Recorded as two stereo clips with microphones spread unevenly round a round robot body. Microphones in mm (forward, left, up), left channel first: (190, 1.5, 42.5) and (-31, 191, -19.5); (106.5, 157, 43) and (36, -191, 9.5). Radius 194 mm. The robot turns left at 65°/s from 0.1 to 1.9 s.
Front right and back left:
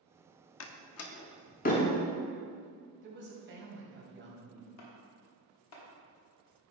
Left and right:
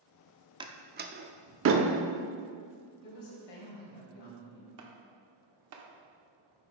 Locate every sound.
0.6 s a door slam: 40° right, 0.7 m; by 1.9 s 120° right, 0.7 m
3.0 s a woman speaking: 90° left, 3 m
4.8 s chopping: 75° right, 1.3 m